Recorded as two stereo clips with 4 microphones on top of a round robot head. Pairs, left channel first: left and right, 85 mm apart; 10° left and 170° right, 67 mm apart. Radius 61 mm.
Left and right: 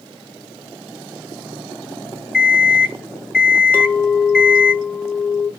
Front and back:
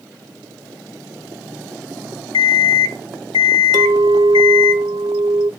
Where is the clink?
165° left, 0.9 m.